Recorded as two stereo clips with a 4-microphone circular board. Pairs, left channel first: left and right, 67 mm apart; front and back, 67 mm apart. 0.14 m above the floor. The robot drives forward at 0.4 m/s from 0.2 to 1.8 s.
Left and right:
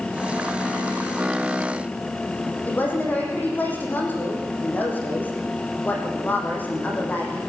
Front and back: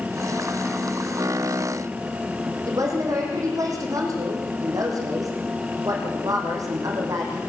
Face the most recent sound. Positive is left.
turn(degrees=150)